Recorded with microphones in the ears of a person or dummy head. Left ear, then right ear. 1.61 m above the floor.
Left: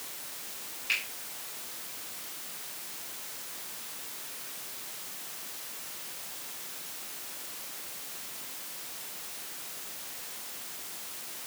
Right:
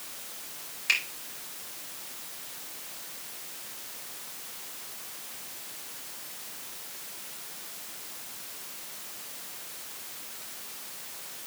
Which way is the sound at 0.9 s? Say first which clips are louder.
Right 4 dB; 75° right (ahead or behind).